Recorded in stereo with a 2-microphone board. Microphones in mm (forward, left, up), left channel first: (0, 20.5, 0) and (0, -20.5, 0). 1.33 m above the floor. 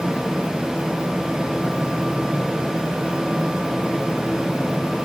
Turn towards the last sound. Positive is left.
No sound to turn to.